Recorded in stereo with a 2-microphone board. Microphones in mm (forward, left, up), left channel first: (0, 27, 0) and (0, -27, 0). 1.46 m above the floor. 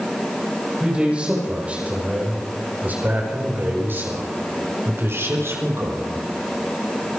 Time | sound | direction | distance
0.8 | a man speaking | 20° right (ahead or behind) | 7 m